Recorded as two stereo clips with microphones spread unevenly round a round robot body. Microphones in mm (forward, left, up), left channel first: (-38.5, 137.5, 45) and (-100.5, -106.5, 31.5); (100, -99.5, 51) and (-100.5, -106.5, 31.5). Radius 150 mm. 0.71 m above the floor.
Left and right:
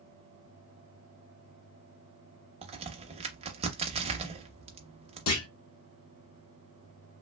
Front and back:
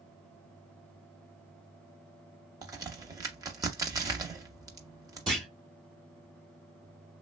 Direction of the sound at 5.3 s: 110° left.